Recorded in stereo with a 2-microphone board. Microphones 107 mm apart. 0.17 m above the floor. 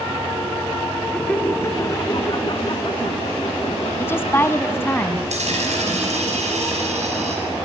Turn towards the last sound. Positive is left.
turn(degrees=-85)